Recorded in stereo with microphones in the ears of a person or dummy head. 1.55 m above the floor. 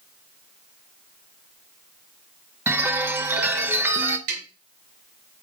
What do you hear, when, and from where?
2.7 s a chime: 10° right (ahead or behind), 0.7 m
4.3 s tapping: 70° right (ahead or behind), 4 m